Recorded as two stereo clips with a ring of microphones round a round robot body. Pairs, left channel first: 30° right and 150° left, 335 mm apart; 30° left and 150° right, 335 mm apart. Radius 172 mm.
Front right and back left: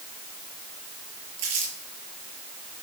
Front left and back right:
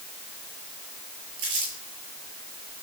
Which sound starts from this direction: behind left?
Crumpling, at 1.4 s.